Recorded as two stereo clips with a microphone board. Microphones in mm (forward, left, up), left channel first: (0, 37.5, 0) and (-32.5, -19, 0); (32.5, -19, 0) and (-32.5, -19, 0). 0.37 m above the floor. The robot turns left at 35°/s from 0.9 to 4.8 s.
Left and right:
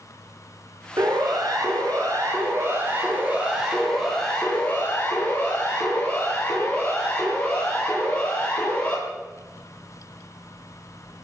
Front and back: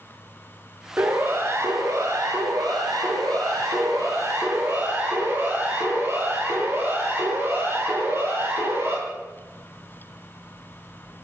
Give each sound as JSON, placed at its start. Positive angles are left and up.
{"t": 1.0, "sound": "a siren", "azimuth_deg": -115, "distance_m": 8.5}